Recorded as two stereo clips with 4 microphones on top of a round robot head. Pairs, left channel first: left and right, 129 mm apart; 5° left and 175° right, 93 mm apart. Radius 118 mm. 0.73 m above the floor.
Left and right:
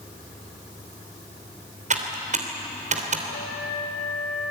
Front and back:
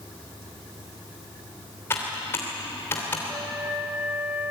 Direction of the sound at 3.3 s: 115° left.